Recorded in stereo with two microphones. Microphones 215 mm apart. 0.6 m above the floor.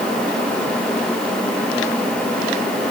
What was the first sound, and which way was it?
Only background noise.